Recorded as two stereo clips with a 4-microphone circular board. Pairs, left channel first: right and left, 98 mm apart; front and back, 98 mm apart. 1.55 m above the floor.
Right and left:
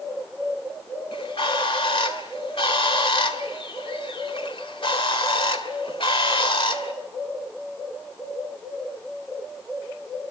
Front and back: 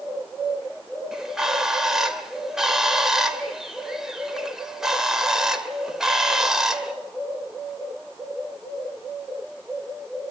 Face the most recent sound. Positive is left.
turn(degrees=-95)